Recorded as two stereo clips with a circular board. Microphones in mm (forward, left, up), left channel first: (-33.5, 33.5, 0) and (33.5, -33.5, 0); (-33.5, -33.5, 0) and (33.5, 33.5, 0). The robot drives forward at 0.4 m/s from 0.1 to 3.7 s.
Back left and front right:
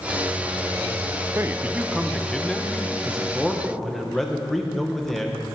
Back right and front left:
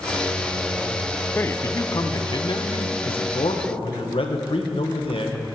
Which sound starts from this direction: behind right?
A man speaking, at 3.0 s.